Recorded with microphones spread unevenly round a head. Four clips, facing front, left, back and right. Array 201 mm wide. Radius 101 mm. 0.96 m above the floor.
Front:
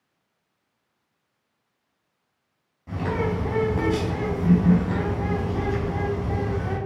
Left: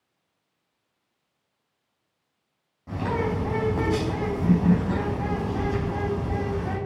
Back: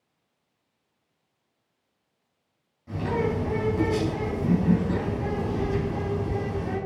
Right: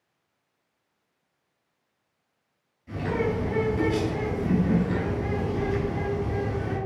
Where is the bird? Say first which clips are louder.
Even, even; 65° left, 4.5 m.